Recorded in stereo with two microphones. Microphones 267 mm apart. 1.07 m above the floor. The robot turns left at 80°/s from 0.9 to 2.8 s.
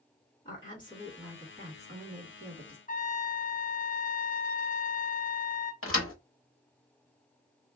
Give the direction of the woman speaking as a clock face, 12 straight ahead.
11 o'clock.